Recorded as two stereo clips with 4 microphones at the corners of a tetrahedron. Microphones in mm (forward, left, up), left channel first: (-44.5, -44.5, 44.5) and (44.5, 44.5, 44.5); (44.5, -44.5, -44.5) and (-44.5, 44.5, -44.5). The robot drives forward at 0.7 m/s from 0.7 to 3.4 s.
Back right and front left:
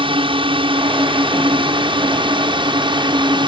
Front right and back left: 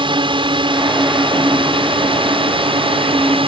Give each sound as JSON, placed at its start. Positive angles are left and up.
{"t": 0.0, "sound": "a drone", "azimuth_deg": 90}